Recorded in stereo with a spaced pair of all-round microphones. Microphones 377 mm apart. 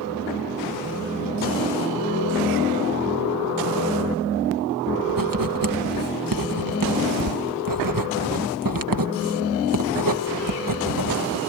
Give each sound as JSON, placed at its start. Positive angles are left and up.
{"t": 5.1, "sound": "writing", "side_deg": -60}